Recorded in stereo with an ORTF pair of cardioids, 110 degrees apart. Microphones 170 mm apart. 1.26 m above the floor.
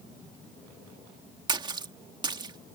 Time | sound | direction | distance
1.5 | a splash | 25° right | ?